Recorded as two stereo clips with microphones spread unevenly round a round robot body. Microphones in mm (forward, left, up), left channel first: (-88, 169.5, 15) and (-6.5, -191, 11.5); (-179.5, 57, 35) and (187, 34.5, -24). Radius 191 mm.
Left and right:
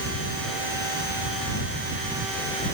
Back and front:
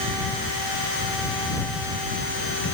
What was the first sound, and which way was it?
Only background noise.